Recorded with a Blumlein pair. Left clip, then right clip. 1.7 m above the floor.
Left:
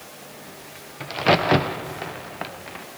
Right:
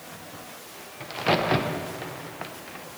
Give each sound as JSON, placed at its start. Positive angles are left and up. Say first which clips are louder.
{"t": 1.0, "sound": "a crack", "louder": "left 5 dB", "azimuth_deg": 15, "distance_m": 0.5}